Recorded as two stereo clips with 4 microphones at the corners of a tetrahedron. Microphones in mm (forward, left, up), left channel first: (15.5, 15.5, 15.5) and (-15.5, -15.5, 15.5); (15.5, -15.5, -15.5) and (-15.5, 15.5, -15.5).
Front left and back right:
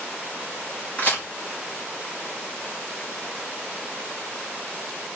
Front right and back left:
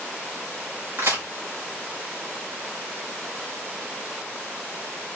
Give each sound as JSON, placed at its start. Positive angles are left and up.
{"t": 1.0, "sound": "a crack", "azimuth_deg": 105, "distance_m": 2.0}